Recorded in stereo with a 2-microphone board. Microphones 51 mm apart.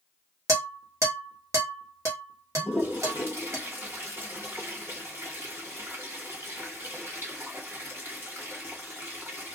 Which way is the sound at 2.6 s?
50° right (ahead or behind).